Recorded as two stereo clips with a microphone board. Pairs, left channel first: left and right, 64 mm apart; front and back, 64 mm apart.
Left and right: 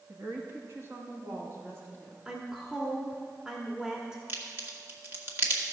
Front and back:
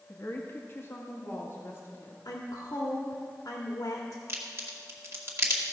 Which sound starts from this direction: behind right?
A crack, at 4.3 s.